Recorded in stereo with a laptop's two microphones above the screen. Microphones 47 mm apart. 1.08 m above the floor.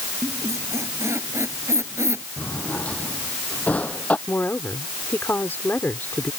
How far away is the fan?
I don't hear a fan.